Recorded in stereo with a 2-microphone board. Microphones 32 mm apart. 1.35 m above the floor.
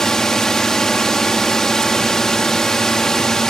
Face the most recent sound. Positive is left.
turn(degrees=15)  # may be behind; listen again after turning